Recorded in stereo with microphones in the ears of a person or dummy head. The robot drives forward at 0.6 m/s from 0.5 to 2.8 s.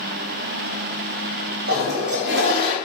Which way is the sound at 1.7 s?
50° right (ahead or behind).